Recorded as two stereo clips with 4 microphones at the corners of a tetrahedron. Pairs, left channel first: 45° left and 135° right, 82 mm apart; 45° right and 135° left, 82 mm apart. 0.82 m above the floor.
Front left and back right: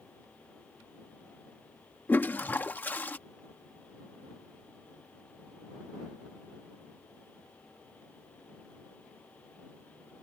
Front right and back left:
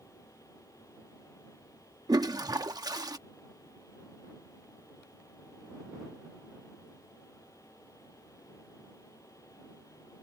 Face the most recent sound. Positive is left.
turn(degrees=110)